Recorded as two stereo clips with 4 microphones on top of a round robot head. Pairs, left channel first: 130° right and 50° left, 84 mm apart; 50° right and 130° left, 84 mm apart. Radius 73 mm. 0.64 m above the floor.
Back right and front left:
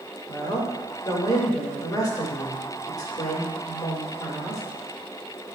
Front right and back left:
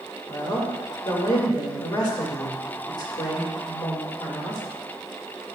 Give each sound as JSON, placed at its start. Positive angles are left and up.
{"t": 0.3, "sound": "a woman speaking", "azimuth_deg": -85, "distance_m": 2.0}